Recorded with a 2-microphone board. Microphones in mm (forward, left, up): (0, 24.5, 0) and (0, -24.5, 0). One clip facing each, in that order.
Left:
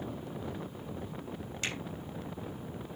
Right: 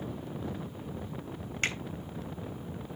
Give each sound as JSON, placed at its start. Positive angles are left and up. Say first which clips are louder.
{"t": 1.6, "sound": "a finger snap", "louder": "right 5 dB", "side_deg": -45, "distance_m": 3.5}